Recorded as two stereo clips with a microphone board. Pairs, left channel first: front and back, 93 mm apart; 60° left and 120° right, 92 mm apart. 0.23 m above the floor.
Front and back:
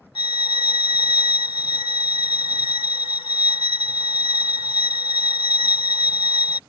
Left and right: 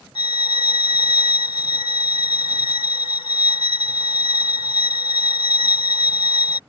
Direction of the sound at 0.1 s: 30° left.